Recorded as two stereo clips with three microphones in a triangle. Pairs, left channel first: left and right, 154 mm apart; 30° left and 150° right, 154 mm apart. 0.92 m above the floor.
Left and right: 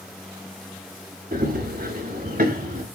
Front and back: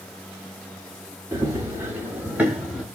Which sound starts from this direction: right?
Running footsteps, at 1.3 s.